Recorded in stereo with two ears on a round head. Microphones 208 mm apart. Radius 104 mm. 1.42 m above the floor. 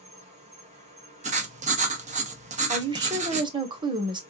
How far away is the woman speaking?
About 1.1 m.